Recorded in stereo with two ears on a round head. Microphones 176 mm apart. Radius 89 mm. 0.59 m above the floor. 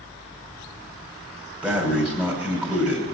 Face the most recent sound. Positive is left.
turn(degrees=-5)  # may be behind; listen again after turning